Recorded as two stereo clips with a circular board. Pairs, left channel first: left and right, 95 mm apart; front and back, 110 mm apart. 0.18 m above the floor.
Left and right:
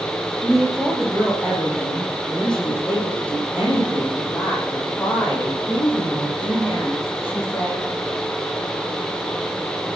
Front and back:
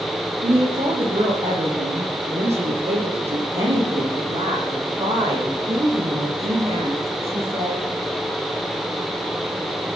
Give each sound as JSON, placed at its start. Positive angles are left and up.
{"t": 0.4, "sound": "a woman speaking", "azimuth_deg": 180, "distance_m": 8.0}